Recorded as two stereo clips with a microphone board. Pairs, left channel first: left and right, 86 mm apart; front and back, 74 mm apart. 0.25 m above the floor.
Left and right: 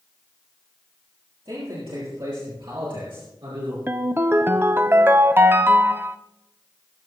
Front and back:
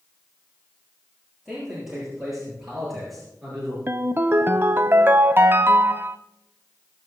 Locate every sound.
1.4 s a man speaking: 95° right, 6.5 m; by 3.8 s 85° right, 5 m
3.9 s a ringtone: 140° right, 0.7 m